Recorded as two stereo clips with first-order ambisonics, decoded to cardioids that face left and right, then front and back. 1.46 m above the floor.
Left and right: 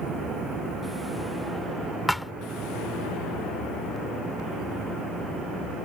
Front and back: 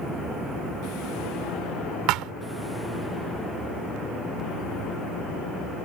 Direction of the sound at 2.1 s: 175° left.